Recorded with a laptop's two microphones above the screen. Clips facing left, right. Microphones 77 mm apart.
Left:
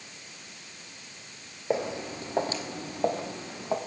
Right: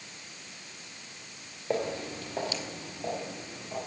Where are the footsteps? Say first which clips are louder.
Left 2 dB; 15° left (ahead or behind), 1.9 m; by 3.8 s 65° left (ahead or behind), 2 m.